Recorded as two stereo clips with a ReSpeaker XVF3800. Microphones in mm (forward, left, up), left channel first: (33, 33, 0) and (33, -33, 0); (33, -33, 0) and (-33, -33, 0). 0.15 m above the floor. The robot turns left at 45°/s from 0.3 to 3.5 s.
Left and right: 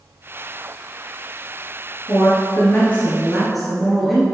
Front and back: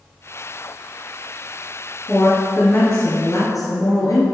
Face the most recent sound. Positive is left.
turn(degrees=0)